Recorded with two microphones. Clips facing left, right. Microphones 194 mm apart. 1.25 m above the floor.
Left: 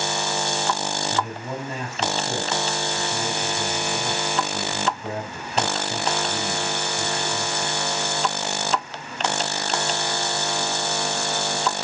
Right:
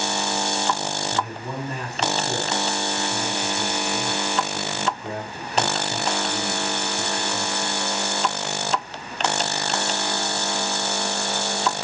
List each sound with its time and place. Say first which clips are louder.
1.1 s a man speaking: left 1 dB; 25° left (ahead or behind), 7 m